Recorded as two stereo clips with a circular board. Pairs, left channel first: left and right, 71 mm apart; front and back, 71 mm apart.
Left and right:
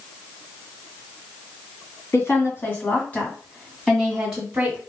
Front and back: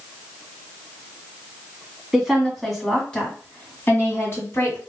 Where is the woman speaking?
105° left, 1.8 m; by 4.8 s 20° right, 1.8 m.